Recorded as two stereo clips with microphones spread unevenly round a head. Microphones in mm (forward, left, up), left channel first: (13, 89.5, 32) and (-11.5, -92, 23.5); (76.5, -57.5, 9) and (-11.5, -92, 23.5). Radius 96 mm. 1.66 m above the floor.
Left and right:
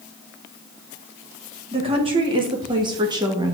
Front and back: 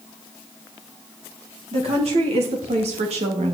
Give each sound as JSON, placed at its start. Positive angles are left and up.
{"t": 1.7, "sound": "a woman speaking", "azimuth_deg": -160, "distance_m": 4.0}